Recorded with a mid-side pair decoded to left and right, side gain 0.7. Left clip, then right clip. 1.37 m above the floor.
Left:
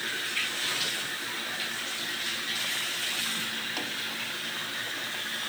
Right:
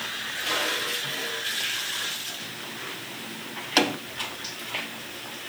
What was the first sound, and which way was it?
Only background noise.